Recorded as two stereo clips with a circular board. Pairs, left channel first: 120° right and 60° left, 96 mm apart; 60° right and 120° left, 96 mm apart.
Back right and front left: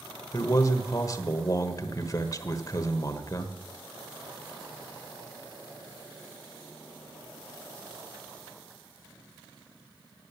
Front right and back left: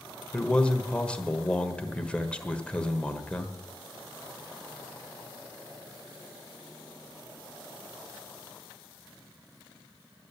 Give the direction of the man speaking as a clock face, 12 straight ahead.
4 o'clock.